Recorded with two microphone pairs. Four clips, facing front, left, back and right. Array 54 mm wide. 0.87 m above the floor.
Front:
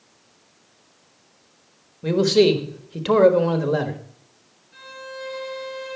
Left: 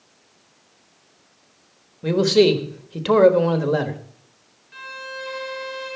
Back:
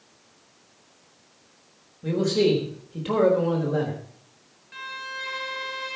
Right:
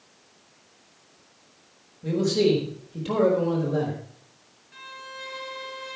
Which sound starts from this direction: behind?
A violin, at 4.7 s.